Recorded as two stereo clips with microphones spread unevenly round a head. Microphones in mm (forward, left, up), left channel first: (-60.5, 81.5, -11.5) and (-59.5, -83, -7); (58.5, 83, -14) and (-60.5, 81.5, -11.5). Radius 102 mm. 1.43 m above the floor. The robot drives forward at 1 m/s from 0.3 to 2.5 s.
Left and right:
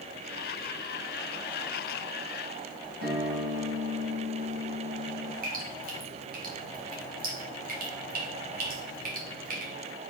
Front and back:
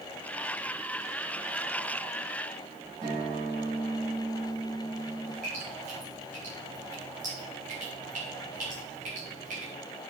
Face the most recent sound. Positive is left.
turn(degrees=-125)